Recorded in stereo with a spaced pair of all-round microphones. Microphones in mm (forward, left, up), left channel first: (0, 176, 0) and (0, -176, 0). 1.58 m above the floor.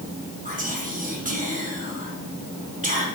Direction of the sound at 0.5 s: 25° right (ahead or behind).